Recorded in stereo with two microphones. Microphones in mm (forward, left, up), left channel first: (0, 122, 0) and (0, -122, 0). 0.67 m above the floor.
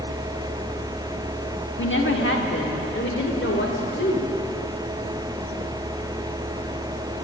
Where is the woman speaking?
50° left (ahead or behind), 1.5 m; by 4.3 s 55° left (ahead or behind), 2.5 m.